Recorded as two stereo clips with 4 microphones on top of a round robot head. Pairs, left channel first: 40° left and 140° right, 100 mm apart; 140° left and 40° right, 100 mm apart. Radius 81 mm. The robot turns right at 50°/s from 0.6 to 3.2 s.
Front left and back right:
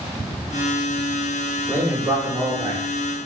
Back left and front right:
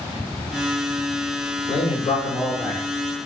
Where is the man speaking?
150° left, 1.3 m; by 2.8 s 150° right, 1.3 m.